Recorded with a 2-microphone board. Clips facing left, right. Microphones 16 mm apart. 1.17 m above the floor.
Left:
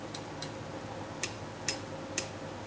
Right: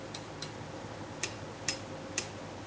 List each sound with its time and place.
Only background noise.